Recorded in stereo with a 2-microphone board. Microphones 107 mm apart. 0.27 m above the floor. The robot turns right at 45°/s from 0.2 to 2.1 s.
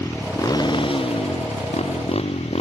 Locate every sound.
0.0 s a motorcycle: 25° left; by 2.6 s 110° left